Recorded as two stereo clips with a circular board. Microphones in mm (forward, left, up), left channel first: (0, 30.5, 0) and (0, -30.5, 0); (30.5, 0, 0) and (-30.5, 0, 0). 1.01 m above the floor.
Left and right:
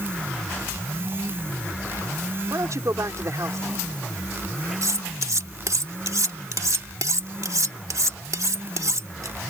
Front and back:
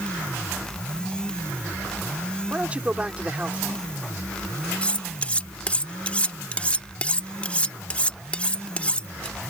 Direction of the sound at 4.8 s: 65° right.